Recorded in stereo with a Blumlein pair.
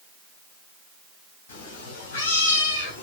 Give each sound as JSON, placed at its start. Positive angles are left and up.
{"t": 1.5, "sound": "a cat meowing", "azimuth_deg": 60, "distance_m": 3.5}